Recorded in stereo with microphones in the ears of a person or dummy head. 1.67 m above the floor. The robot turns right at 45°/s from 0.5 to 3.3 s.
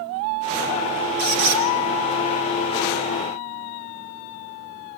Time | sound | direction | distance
1.2 | a squeak | 45° right (ahead or behind) | 1.8 m